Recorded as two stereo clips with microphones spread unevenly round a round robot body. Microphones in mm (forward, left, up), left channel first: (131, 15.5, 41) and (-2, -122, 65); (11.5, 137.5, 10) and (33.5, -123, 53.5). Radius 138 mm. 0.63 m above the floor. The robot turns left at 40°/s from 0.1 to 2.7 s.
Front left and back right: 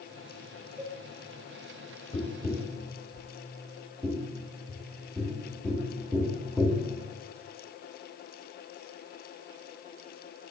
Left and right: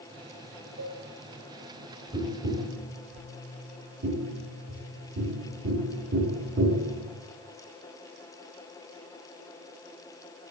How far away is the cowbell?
About 1.6 m.